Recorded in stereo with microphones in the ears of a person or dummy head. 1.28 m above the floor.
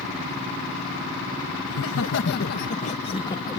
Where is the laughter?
75° left (ahead or behind); by 3.6 s 20° left (ahead or behind).